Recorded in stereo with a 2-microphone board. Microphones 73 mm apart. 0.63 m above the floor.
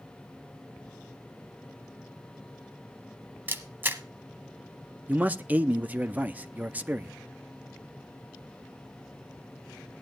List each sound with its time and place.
3.5 s a camera shutter: 25° right (ahead or behind), 1.1 m
5.1 s a man speaking: 20° right (ahead or behind), 0.5 m